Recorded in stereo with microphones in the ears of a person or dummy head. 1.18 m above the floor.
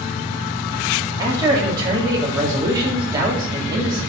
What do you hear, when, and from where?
1.2 s a man speaking: 20° right (ahead or behind), 3.5 m